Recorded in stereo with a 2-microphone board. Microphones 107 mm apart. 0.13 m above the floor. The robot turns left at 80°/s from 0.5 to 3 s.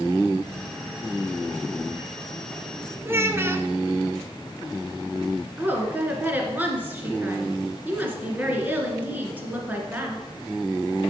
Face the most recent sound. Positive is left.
turn(degrees=-15)  # may be behind; listen again after turning